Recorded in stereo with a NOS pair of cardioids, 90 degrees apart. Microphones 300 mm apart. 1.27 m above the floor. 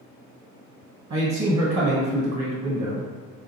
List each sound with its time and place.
1.1 s a man speaking: 55° right, 1.3 m